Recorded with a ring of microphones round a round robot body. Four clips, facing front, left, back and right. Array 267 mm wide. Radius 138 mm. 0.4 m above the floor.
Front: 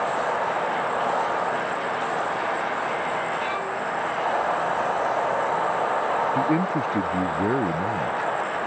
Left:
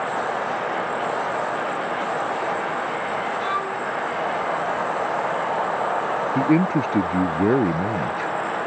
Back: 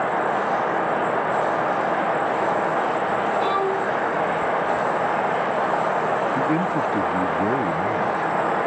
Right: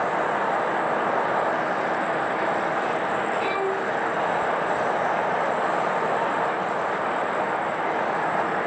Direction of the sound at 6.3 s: 90° left.